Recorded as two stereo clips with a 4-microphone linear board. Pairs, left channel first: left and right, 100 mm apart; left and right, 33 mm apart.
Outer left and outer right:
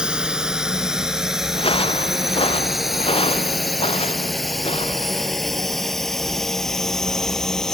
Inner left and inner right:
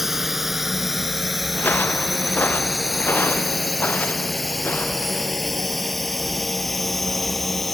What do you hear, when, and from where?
0.0 s a drone: 10° right (ahead or behind); by 7.8 s 5° left (ahead or behind)
1.5 s footsteps: 65° left (ahead or behind); by 5.3 s 80° left